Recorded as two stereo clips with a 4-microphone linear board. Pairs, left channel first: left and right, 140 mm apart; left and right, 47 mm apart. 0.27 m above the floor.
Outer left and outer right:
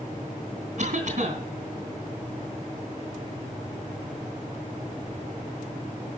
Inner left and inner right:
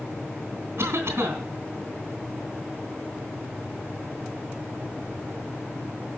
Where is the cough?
60° right (ahead or behind), 3 m.